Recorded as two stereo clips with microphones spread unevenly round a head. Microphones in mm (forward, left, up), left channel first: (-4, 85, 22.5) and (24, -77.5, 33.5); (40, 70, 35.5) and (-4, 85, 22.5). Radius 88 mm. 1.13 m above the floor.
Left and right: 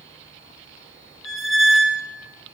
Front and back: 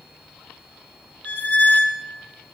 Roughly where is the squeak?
Ahead.